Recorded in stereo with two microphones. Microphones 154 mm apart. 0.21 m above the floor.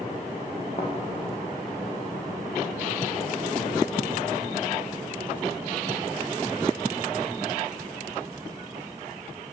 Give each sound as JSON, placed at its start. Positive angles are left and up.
{"t": 0.8, "sound": "a thud", "side_deg": 45, "distance_m": 8.0}